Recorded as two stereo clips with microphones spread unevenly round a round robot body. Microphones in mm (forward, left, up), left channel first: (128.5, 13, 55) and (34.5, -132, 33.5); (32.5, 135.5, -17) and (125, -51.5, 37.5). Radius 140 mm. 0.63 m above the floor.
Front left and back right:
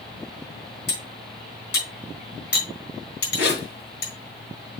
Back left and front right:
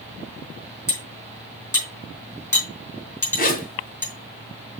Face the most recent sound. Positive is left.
turn(degrees=65)